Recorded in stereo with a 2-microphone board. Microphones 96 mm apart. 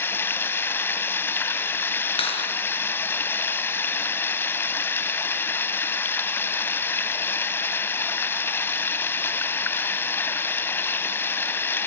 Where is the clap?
80° left, 7.5 m.